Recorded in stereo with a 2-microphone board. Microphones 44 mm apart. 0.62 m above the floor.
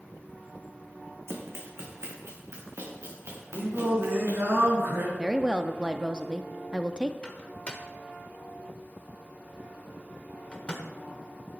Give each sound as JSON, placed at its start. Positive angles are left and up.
{"t": 1.3, "sound": "running footsteps", "side_deg": -65, "distance_m": 1.8}
{"t": 3.5, "sound": "singing", "side_deg": -60, "distance_m": 4.5}
{"t": 5.2, "sound": "a woman speaking", "side_deg": -20, "distance_m": 0.5}
{"t": 7.2, "sound": "a microwave", "side_deg": 25, "distance_m": 1.4}